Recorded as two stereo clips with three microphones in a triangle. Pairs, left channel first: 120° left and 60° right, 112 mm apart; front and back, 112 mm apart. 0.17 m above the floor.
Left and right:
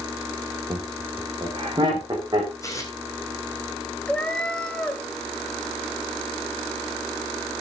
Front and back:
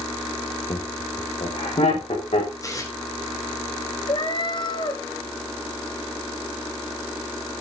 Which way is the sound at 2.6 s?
60° left.